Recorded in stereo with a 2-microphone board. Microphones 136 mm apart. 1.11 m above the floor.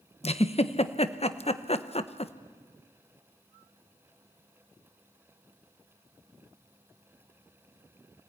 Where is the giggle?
50° left (ahead or behind), 1.0 m.